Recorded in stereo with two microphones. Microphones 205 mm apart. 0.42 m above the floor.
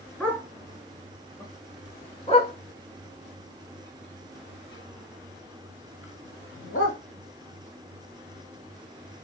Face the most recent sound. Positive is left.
turn(degrees=80)